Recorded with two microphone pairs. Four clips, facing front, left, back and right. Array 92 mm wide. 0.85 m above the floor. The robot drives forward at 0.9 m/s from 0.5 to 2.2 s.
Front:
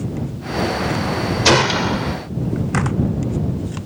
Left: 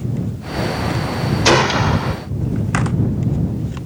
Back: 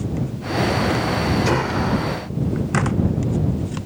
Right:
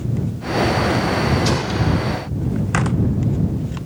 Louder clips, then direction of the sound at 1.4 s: Left 6 dB, front 4 dB; 45° left.